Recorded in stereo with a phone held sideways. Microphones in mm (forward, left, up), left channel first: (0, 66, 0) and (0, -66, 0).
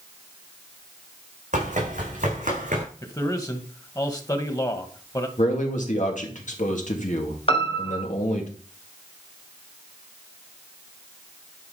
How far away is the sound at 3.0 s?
About 1.7 m.